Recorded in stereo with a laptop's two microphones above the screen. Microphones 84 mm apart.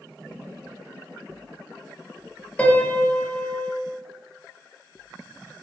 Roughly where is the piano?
Centre.